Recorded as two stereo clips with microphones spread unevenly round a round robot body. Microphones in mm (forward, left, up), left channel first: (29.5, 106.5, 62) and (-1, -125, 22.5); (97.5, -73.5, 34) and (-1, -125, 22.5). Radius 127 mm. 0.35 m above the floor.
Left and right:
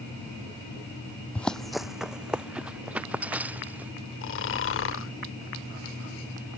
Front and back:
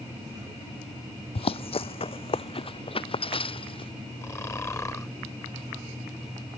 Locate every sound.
1.4 s running footsteps: 5° left; by 3.9 s 15° right
4.2 s snoring: 95° left